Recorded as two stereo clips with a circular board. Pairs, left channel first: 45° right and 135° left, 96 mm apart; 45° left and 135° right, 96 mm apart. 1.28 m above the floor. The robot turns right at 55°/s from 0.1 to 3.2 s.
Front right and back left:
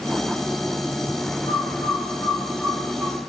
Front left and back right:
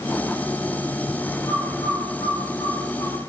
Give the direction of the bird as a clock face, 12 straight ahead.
12 o'clock.